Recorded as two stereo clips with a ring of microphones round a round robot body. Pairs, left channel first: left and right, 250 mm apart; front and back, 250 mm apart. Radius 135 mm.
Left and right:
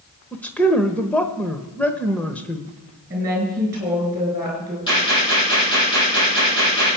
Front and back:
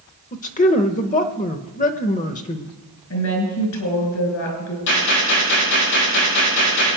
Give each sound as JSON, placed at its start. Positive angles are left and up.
{"t": 0.3, "sound": "a man speaking", "azimuth_deg": 10, "distance_m": 0.9}
{"t": 3.1, "sound": "a woman speaking", "azimuth_deg": -10, "distance_m": 5.0}
{"t": 4.9, "sound": "a gunshot", "azimuth_deg": 15, "distance_m": 9.0}